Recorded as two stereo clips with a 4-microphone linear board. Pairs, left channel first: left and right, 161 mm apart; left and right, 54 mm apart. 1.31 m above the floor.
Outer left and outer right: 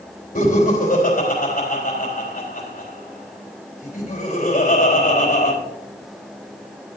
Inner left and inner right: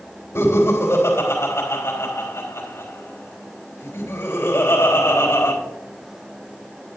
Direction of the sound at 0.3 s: 60° left (ahead or behind).